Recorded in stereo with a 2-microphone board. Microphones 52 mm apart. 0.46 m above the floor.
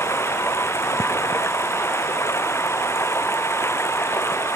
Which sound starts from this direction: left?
Running water, at 0.0 s.